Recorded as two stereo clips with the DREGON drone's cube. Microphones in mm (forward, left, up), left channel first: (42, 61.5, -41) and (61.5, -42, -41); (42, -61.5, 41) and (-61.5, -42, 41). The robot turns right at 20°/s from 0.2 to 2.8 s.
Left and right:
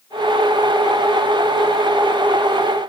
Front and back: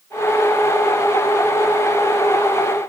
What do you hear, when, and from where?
Only background noise.